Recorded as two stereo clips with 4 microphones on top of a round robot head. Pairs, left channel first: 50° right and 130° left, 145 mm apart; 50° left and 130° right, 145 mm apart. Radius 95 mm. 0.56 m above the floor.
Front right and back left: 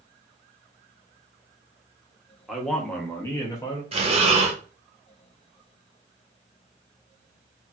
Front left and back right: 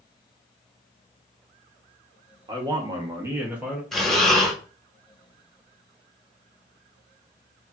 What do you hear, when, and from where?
2.5 s a man speaking: 145° right, 1.0 m; by 3.8 s 45° right, 0.9 m
3.9 s breathing: 140° left, 1.0 m